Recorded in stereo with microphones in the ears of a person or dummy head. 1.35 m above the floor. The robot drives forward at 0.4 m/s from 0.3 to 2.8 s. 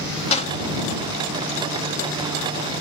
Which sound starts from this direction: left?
A door slam, at 0.3 s.